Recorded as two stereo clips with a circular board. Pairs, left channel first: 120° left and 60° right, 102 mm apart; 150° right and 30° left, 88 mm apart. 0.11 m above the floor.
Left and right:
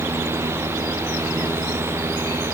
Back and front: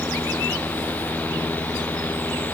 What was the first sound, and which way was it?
Only background noise.